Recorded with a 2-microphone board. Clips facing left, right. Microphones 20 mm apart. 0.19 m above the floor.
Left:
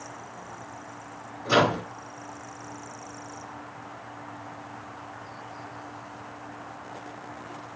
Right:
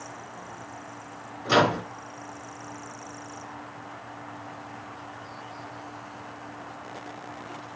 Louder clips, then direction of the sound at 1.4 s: Even; 30° right (ahead or behind).